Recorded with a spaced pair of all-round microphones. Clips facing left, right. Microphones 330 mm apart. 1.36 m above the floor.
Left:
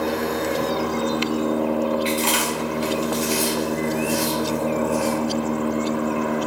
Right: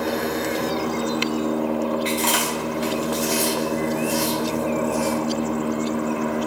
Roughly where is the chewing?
Centre.